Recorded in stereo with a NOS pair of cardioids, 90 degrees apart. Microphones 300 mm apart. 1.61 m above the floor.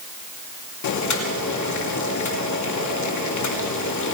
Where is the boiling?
70° left, 3 m.